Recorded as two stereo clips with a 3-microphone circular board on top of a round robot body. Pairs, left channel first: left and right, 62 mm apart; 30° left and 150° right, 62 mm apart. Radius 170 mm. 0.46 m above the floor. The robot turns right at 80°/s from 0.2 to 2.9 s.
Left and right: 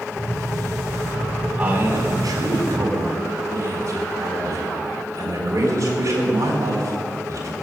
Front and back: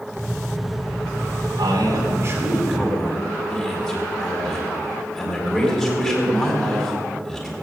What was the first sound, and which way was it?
A man speaking, 155° right.